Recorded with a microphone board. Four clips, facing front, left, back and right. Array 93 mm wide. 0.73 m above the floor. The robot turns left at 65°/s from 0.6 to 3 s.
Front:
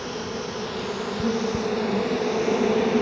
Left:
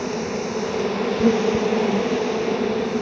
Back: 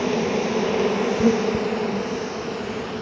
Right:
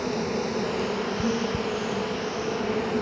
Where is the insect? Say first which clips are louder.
Left 2 dB, back 9 dB; 170° left, 1.4 m; by 3.0 s 15° left, 1.4 m.